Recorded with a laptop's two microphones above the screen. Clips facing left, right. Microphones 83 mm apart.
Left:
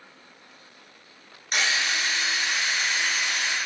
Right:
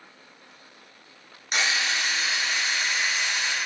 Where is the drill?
Centre (ahead or behind), 1.3 m.